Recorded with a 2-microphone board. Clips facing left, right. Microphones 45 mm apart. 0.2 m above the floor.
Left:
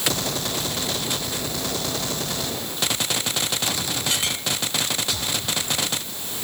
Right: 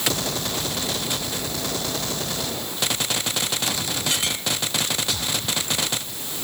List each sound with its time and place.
Only background noise.